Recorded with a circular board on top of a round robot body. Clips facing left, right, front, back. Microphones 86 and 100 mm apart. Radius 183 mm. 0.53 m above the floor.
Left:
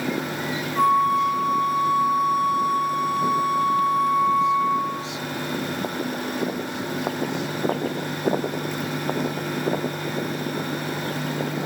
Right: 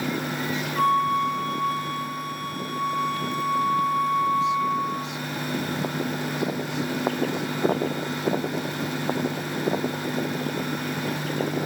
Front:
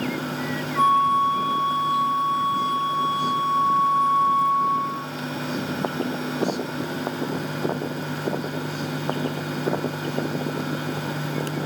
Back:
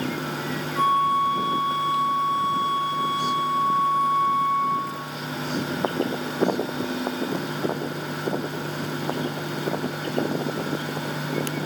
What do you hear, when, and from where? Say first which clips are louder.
0.8 s a flute: left 3 dB, front 2 dB; 25° left, 0.9 m